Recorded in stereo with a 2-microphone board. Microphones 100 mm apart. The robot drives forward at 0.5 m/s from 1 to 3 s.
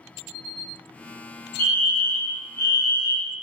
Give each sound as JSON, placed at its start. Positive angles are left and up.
{"t": 1.6, "sound": "a fire alarm", "side_deg": 20, "distance_m": 1.8}